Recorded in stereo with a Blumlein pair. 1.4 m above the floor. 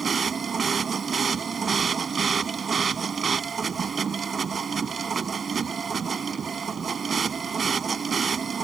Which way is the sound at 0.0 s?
20° right.